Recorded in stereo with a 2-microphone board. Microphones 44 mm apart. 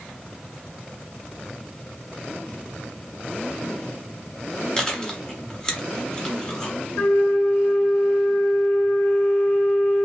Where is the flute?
60° left (ahead or behind), 2.5 m.